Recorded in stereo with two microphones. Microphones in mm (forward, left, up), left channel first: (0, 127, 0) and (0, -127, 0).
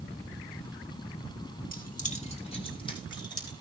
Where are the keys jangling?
35° left (ahead or behind), 1.9 m; by 3.5 s 15° left (ahead or behind), 4 m.